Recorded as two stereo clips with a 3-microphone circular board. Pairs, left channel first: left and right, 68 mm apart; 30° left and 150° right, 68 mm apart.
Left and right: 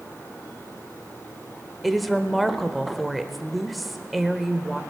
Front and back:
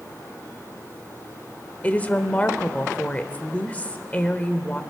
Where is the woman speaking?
5° right, 0.8 m.